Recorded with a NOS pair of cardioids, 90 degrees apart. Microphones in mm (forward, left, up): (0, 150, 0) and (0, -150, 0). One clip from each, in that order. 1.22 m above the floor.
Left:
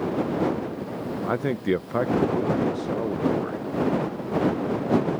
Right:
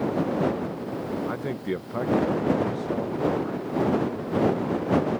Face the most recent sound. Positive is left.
turn(degrees=25)